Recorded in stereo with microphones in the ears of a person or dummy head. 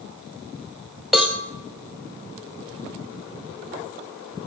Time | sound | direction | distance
1.1 | a cowbell | centre (ahead or behind) | 0.8 m